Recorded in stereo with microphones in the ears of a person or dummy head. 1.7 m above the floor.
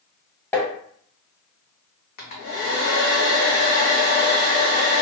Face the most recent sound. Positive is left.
turn(degrees=45)  # may be behind; listen again after turning